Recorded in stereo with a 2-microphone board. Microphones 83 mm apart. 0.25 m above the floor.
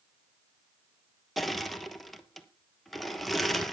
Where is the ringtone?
No ringtone in this recording.